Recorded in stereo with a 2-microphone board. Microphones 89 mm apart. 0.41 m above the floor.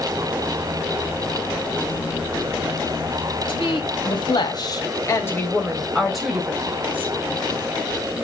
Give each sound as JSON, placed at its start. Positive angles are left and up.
{"t": 3.5, "sound": "a woman speaking", "side_deg": 70, "distance_m": 2.5}